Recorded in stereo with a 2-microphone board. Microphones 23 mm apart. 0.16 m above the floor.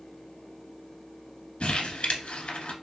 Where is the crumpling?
55° left (ahead or behind), 0.7 m.